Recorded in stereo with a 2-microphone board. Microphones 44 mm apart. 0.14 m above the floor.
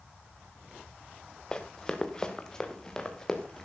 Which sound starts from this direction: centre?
Running footsteps, at 1.5 s.